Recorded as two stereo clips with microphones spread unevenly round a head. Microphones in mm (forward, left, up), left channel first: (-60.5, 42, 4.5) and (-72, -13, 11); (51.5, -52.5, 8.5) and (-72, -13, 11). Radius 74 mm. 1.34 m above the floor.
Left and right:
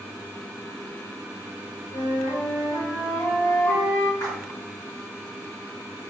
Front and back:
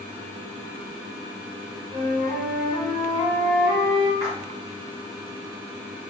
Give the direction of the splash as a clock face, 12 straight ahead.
9 o'clock.